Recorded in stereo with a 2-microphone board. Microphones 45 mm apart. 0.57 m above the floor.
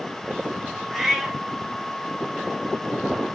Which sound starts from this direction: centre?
A cat meowing, at 0.9 s.